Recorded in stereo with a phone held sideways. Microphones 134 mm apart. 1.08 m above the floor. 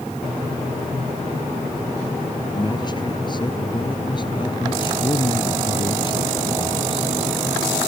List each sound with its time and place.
2.5 s a man speaking: 30° left (ahead or behind); by 7.1 s 35° left (ahead or behind)